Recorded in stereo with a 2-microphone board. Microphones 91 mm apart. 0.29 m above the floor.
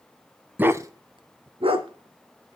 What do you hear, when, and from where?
0.6 s a dog barking: 20° right (ahead or behind), 0.7 m; by 2.6 s 70° right (ahead or behind), 1.8 m